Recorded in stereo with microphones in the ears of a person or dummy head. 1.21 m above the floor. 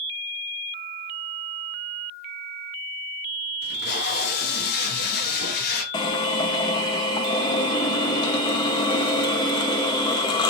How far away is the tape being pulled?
About 0.9 m.